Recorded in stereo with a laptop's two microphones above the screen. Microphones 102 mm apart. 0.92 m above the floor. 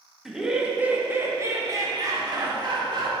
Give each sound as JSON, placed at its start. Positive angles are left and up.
{"t": 0.2, "sound": "laughter", "side_deg": 0, "distance_m": 1.1}